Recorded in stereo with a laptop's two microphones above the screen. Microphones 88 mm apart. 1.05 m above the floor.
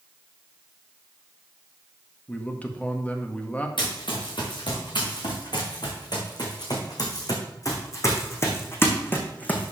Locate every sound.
2.3 s a man speaking: 20° left (ahead or behind), 1.6 m
3.8 s running footsteps: 70° left (ahead or behind), 5 m; by 9.7 s 15° left (ahead or behind), 3 m